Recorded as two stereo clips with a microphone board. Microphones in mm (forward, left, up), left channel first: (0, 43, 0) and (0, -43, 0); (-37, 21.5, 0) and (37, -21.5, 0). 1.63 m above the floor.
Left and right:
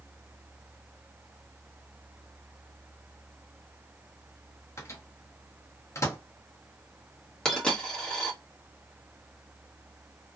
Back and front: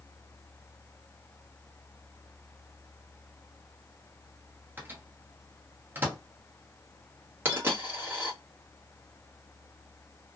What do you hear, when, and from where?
4.8 s a microwave: 35° left, 1.0 m
7.5 s a dropped coin: 15° left, 1.2 m